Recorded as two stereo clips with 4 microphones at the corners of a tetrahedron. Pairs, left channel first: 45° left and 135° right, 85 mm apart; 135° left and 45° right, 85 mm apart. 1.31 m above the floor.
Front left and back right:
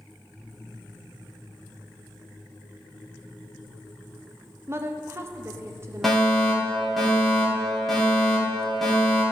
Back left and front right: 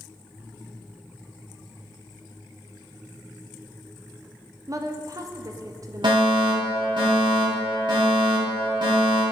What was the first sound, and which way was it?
A woman speaking, 80° right.